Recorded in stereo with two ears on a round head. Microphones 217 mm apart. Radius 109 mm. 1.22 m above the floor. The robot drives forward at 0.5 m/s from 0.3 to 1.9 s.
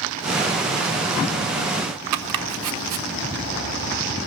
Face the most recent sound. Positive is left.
turn(degrees=-80)